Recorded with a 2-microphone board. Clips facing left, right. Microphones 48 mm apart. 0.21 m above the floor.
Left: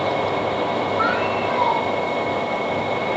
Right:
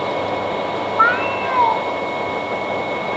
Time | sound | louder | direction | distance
1.0 | a cat meowing | right 8 dB | 40° right (ahead or behind) | 1.2 m